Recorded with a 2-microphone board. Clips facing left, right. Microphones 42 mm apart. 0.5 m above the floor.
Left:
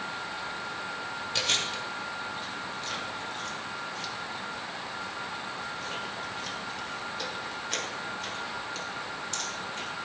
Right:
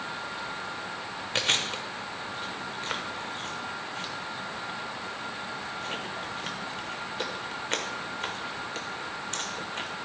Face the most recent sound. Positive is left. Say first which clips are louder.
# right 3 dB
turn(degrees=-40)  # may be behind; listen again after turning